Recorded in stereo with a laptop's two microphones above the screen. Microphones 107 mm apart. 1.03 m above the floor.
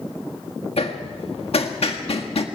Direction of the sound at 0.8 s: 75° left (ahead or behind).